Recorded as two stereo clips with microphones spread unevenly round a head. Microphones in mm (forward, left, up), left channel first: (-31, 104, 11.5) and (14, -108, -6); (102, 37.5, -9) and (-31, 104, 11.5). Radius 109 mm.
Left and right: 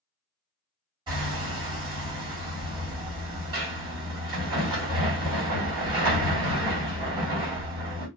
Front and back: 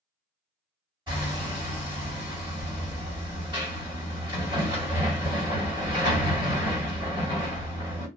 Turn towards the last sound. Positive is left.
turn(degrees=-150)